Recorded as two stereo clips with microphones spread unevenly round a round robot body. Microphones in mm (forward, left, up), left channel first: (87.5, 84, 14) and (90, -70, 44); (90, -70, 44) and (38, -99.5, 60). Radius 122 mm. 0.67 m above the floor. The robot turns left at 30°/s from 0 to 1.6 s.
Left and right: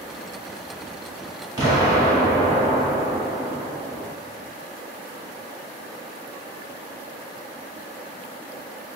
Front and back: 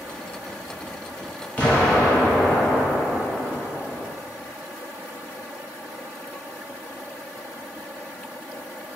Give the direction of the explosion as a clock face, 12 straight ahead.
1 o'clock.